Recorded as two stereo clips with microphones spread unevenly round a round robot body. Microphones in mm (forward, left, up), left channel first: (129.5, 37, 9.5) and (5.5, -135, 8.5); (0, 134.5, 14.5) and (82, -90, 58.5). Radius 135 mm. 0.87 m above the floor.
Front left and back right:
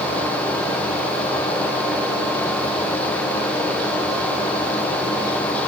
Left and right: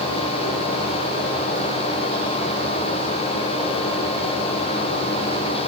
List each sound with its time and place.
Only background noise.